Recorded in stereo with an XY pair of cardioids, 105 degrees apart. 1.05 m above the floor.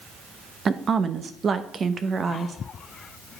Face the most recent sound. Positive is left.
turn(degrees=-45)